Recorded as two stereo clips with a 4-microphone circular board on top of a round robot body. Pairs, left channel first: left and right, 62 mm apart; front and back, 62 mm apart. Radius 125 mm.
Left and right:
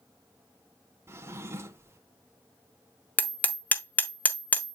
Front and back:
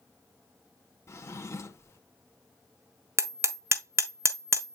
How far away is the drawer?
About 1.6 m.